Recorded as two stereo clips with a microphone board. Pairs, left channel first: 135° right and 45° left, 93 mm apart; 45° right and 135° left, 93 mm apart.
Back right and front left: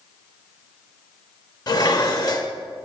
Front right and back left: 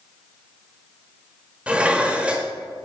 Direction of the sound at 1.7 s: 150° right.